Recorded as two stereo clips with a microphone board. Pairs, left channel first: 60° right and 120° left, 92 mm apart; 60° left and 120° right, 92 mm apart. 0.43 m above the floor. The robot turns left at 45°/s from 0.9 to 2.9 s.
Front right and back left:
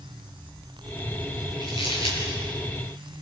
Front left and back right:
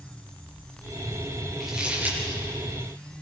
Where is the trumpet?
I don't hear a trumpet.